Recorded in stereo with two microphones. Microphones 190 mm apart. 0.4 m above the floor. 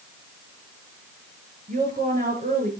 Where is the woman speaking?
45° right (ahead or behind), 6 m.